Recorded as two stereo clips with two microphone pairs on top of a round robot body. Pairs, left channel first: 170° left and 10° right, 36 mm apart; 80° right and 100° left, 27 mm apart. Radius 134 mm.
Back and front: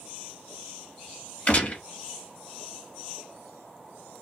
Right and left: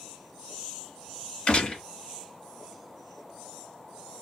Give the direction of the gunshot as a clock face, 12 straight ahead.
4 o'clock.